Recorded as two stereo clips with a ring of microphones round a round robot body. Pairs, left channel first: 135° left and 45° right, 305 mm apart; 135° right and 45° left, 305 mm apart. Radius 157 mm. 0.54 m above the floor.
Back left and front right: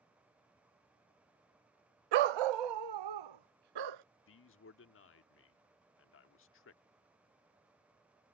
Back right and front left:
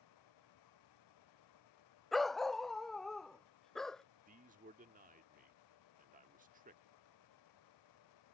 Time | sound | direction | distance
2.1 | a dog barking | 45° right | ?
4.3 | a man speaking | 100° left | ?